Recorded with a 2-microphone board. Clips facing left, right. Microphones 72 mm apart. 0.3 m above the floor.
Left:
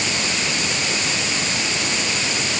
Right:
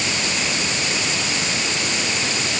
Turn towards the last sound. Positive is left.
No sound to turn to.